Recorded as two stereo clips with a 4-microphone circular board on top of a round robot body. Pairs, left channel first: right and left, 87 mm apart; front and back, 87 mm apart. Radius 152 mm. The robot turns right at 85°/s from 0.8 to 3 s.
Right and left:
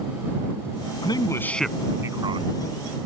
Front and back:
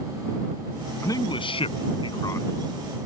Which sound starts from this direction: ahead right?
A man speaking, at 1.0 s.